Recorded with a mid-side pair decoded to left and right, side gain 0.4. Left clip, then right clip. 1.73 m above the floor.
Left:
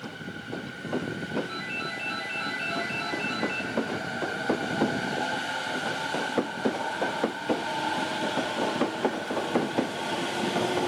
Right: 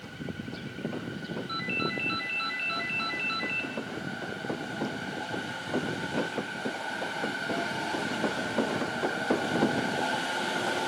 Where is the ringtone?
60° right, 2.5 m.